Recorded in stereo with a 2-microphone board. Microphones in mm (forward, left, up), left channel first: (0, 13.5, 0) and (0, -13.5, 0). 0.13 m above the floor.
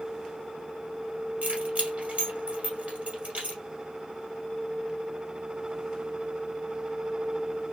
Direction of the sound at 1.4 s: 55° right (ahead or behind).